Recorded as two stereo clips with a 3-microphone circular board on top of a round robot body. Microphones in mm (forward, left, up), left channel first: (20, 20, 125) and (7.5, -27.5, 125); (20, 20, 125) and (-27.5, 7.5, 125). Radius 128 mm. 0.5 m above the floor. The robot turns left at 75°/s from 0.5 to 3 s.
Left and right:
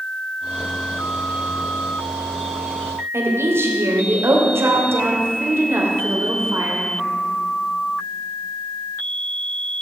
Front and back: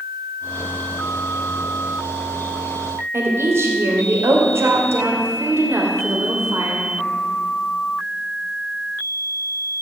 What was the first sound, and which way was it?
A woman speaking, 135° right.